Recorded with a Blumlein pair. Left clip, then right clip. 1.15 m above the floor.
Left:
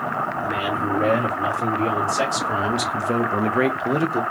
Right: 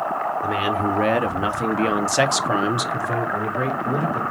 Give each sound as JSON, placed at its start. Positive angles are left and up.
{"t": 0.4, "sound": "a man speaking", "azimuth_deg": -70, "distance_m": 1.7}